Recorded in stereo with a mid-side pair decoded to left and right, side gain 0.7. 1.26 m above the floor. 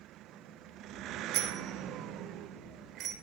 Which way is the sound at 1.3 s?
60° right.